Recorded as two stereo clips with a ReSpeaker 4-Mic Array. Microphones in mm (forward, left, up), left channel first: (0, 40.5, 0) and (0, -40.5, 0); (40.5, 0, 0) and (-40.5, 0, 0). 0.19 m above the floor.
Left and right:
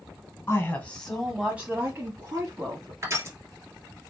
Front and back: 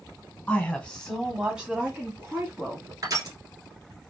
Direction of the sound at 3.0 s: 140° right.